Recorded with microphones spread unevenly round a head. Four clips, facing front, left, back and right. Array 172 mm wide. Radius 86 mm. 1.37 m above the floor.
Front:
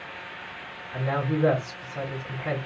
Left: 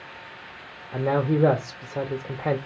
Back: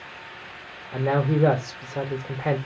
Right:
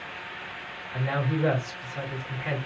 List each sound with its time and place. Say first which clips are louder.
0.9 s a man speaking: left 6 dB, back 4 dB; 125° left, 0.8 m